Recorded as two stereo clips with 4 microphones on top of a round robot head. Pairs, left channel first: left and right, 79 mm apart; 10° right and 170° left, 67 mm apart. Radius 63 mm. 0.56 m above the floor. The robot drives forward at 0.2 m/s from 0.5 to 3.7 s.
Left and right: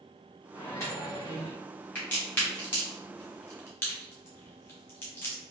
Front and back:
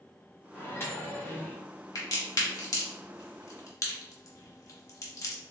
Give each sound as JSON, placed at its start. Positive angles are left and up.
{"t": 0.5, "sound": "a microwave", "azimuth_deg": 35, "distance_m": 1.3}
{"t": 1.9, "sound": "a crack", "azimuth_deg": 20, "distance_m": 1.3}